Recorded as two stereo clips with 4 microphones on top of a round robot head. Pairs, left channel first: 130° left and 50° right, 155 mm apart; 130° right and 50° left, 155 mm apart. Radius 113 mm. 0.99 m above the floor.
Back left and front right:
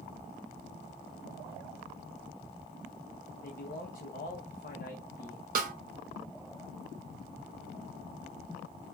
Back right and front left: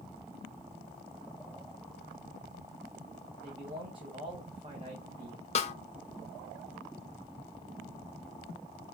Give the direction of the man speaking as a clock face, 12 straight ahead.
9 o'clock.